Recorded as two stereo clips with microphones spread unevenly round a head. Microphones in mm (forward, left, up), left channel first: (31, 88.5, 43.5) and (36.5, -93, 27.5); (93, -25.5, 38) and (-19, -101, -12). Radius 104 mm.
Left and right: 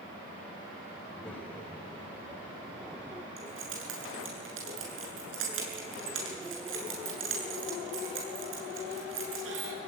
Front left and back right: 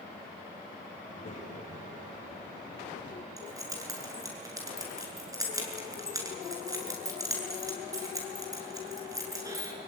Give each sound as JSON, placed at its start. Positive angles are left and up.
{"t": 1.0, "sound": "a child speaking", "azimuth_deg": 0, "distance_m": 3.5}
{"t": 3.4, "sound": "keys jangling", "azimuth_deg": -80, "distance_m": 8.0}